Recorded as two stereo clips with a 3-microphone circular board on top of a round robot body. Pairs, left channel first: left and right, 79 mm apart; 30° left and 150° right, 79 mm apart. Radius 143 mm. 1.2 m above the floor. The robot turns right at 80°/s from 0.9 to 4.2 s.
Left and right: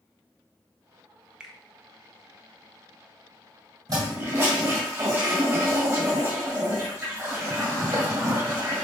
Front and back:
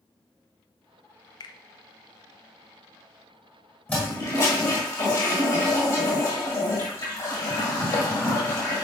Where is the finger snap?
10° right, 0.6 m; by 1.6 s straight ahead, 0.6 m.